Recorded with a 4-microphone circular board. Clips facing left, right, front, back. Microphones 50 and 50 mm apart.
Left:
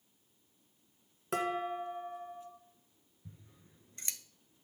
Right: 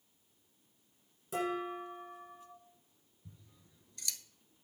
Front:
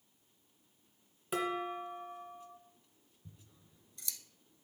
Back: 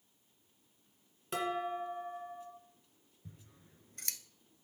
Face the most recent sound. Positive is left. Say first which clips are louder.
# left 3 dB, back 3 dB
turn(degrees=150)